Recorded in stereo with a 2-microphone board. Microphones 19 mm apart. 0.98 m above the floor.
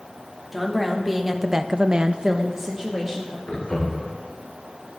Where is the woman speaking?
Centre (ahead or behind), 1.9 m; by 3.4 s 15° right (ahead or behind), 2 m.